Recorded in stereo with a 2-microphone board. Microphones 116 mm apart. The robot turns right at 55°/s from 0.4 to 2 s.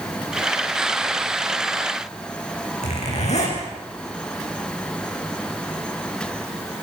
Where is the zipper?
75° left (ahead or behind), 9 m.